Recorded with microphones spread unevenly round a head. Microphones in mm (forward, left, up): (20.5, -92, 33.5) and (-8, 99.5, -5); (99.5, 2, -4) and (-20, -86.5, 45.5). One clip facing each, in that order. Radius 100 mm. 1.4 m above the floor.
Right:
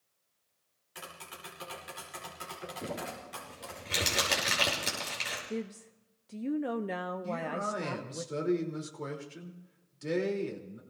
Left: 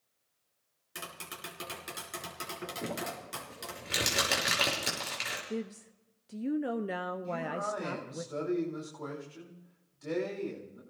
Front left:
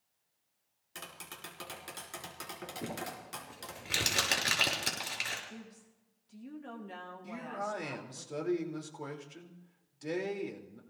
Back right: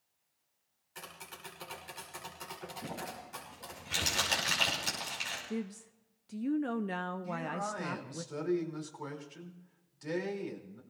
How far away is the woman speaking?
About 0.5 m.